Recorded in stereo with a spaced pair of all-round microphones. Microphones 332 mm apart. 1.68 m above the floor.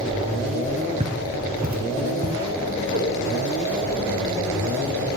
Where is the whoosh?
35° right (ahead or behind), 2 m.